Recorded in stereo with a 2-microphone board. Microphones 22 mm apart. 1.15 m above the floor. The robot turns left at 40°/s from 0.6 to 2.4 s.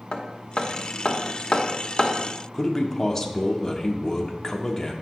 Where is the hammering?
55° left (ahead or behind), 1.0 m; by 2.1 s 25° left (ahead or behind), 1.0 m.